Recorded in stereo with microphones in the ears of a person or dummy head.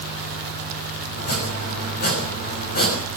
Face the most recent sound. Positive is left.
turn(degrees=50)  # may be behind; listen again after turning